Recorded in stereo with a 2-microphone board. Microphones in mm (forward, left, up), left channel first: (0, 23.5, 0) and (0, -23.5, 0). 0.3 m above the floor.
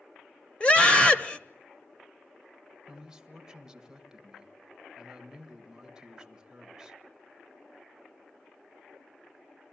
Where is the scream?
25° left (ahead or behind), 1.1 m.